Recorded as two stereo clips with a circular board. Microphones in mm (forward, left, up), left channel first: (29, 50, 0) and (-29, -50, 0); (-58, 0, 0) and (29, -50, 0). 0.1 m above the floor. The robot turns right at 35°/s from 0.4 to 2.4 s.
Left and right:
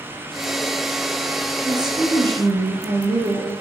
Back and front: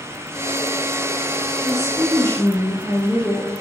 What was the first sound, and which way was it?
A woman speaking, 170° right.